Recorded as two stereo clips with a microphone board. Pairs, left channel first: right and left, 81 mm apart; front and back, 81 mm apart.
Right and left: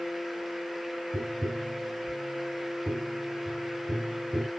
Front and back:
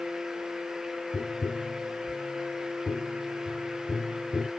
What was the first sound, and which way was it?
Tapping, 50° left.